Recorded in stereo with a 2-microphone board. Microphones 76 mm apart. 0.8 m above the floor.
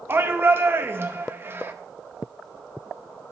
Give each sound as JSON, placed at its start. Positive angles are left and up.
{"t": 0.1, "sound": "a shout", "side_deg": -30, "distance_m": 0.6}